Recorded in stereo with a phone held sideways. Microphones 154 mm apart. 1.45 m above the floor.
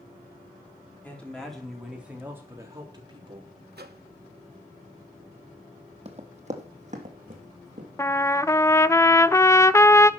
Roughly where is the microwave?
Right.